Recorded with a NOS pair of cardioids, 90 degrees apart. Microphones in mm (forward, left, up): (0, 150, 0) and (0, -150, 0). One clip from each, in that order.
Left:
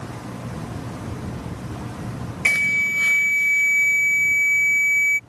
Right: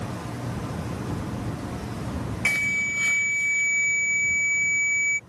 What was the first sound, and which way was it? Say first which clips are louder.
An alarm: left 5 dB; 20° left.